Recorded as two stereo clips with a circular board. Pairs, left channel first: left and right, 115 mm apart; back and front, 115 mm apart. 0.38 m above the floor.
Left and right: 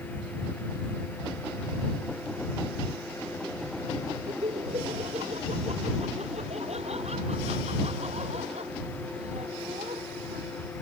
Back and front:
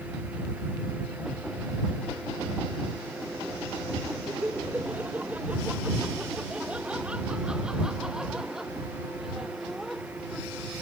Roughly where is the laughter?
Right.